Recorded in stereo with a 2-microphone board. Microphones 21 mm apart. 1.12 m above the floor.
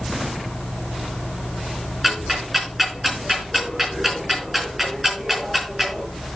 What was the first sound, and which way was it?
Ticking, 5° right (ahead or behind).